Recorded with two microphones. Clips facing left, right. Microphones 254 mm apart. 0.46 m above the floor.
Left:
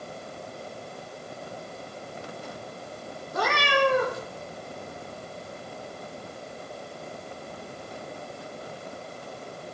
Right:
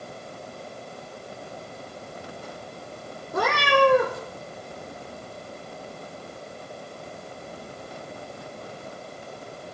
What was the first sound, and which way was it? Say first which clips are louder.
A cat meowing: right 4 dB; 55° right (ahead or behind).